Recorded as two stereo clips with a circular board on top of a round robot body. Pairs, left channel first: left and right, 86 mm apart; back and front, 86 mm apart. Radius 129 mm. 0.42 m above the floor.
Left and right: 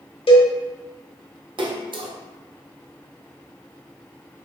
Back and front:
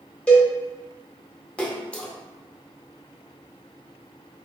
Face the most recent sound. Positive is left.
turn(degrees=-105)